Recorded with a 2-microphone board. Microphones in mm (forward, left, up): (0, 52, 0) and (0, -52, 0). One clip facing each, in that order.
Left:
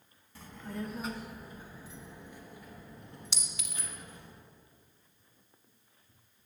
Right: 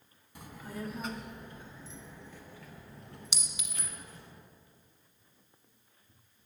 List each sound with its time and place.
0.3 s a child speaking: 15° right (ahead or behind), 0.8 m; by 4.3 s 20° left (ahead or behind), 3 m
3.3 s a clink: 15° right (ahead or behind), 1.0 m